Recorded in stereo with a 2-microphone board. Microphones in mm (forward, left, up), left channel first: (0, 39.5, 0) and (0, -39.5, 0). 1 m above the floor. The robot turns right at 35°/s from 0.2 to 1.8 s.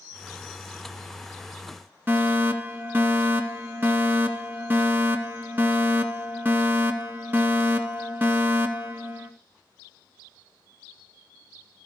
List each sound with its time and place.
2.1 s a fire alarm: 25° right (ahead or behind), 2 m